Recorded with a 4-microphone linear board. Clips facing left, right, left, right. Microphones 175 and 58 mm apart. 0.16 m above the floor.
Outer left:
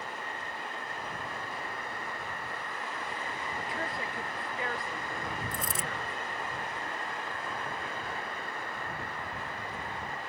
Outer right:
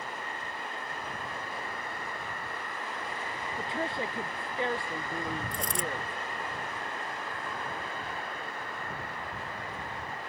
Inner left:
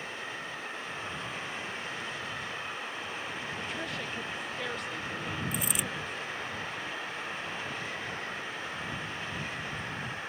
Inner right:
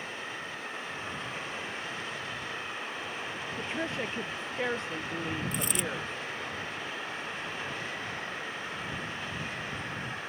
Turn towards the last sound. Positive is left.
turn(degrees=0)  # may be behind; listen again after turning